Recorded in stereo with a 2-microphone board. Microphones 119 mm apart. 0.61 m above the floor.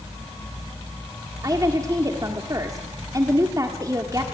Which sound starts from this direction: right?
A woman speaking, at 1.4 s.